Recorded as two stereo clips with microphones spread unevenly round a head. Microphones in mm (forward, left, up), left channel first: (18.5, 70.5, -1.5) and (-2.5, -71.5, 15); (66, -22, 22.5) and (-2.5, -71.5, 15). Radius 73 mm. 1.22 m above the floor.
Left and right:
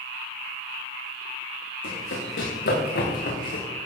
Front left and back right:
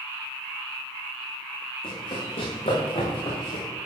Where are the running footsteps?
80° left, 4.5 m; by 3.6 s 55° left, 5 m.